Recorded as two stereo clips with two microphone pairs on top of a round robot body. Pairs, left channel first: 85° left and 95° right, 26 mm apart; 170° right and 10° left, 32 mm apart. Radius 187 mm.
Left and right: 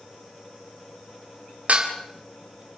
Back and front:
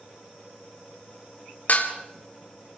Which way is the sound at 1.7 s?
130° right.